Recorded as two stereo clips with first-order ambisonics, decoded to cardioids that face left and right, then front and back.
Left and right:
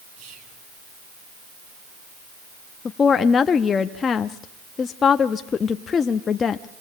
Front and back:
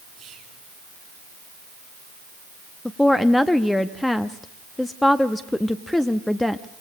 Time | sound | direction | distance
0.2 | whispering | 110° right | 7.5 m
2.9 | a woman speaking | 75° left | 0.6 m